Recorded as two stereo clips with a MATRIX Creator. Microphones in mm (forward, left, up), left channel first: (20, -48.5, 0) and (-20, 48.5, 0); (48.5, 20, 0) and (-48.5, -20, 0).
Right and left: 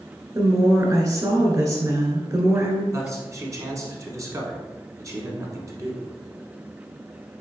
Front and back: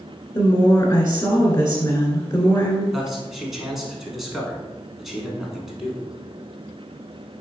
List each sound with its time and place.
0.3 s a woman speaking: 70° left, 1.7 m
2.9 s a man speaking: 120° left, 1.1 m